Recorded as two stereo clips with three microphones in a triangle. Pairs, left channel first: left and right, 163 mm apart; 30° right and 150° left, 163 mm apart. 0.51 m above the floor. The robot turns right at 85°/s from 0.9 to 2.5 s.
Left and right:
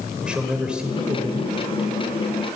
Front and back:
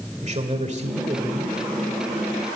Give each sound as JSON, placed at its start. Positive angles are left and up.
{"t": 0.2, "sound": "a man speaking", "azimuth_deg": -175, "distance_m": 2.0}